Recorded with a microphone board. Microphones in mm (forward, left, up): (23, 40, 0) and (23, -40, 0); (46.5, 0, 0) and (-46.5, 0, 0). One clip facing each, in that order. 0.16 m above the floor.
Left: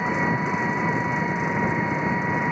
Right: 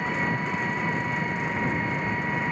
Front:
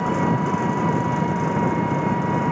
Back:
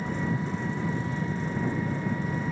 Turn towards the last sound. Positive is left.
turn(degrees=15)